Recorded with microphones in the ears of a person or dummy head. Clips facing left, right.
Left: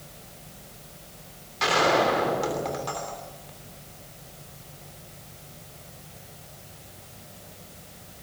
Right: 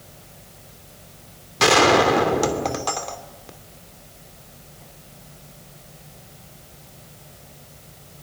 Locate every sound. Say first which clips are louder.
1.6 s a gunshot: right 6 dB; 65° right (ahead or behind), 3 m